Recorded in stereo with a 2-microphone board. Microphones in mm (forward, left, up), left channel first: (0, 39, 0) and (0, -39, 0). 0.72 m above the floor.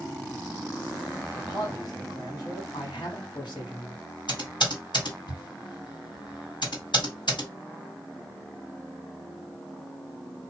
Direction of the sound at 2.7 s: 75° left (ahead or behind).